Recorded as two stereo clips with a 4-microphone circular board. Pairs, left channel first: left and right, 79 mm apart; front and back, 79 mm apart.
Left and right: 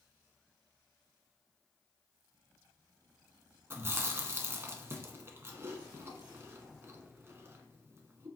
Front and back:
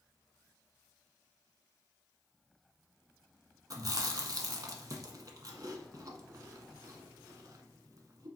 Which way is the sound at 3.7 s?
145° right.